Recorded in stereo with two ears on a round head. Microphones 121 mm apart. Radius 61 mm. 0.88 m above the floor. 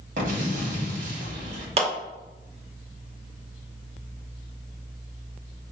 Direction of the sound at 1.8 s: 50° right (ahead or behind).